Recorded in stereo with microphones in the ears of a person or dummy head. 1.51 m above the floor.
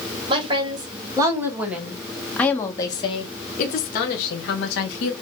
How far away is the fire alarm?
I don't hear a fire alarm.